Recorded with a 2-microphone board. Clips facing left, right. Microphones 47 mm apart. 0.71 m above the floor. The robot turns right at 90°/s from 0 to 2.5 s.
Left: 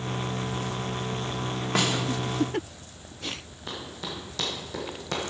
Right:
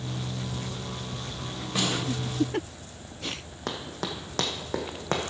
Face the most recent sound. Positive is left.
turn(degrees=-40)  # may be behind; listen again after turning